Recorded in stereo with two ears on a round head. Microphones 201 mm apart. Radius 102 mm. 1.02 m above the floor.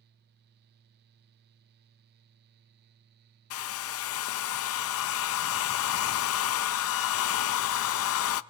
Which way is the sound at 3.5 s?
65° left (ahead or behind).